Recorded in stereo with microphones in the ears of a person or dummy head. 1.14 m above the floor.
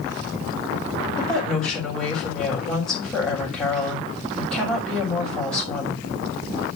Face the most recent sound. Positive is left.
turn(degrees=5)  # may be behind; listen again after turning